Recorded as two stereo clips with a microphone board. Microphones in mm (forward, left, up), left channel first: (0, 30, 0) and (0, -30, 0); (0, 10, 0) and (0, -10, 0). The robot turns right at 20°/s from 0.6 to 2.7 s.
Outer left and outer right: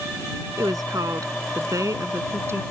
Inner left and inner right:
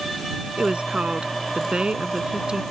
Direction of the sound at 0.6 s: 90° right.